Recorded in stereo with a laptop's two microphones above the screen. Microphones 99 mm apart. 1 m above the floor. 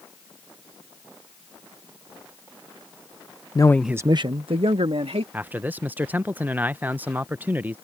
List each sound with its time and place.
3.5 s a man speaking: 40° left (ahead or behind); by 5.2 s 75° right (ahead or behind)
5.3 s a man speaking: 20° right (ahead or behind)